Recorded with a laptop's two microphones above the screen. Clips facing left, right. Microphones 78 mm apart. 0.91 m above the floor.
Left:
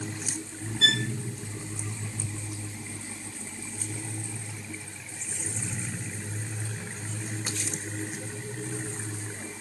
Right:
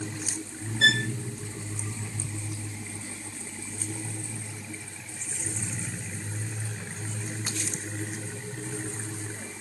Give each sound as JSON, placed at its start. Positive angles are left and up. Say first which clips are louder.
{"t": 0.8, "sound": "a violin", "louder": "right 4 dB", "side_deg": -50, "distance_m": 3.5}